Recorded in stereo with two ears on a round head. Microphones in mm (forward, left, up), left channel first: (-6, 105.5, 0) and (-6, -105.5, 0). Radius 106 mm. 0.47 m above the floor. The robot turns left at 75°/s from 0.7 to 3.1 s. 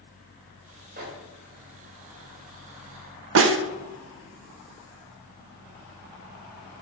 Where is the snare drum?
55° right (ahead or behind), 0.6 m.